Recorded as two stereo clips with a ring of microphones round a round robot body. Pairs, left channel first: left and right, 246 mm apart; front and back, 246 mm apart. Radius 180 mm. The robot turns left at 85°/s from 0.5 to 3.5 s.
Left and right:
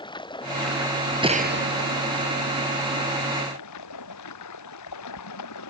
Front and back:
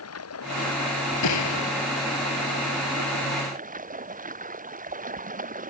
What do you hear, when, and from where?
0.0 s running water: 20° left; by 5.7 s 125° left
1.2 s a gunshot: 20° right; by 1.8 s 65° right